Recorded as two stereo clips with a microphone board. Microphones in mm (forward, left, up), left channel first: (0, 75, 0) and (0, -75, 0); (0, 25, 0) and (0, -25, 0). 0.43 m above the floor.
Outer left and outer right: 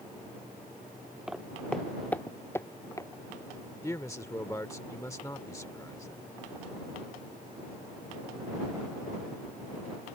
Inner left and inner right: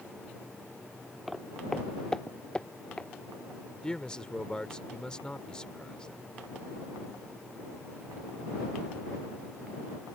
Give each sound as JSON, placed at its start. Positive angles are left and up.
{"t": 1.3, "sound": "footsteps", "side_deg": -5}
{"t": 3.8, "sound": "a man speaking", "side_deg": 20}